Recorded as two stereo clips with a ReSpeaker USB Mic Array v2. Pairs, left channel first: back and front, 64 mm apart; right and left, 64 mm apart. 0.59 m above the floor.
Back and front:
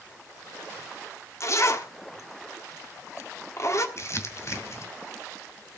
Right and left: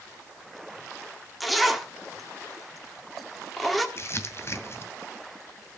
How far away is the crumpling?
About 1.8 m.